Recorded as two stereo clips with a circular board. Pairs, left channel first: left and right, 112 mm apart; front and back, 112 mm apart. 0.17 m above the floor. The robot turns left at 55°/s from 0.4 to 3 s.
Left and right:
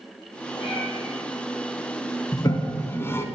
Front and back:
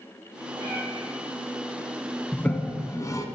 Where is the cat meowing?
130° left, 2 m; by 0.8 s 110° left, 2 m.